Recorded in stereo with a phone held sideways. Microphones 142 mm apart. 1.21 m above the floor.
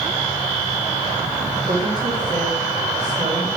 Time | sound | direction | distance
1.6 | a woman speaking | 80° right | 2.5 m